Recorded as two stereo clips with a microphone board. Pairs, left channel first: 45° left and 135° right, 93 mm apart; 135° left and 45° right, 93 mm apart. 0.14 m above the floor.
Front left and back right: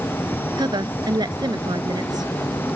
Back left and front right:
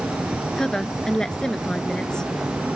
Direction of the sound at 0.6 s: 145° right.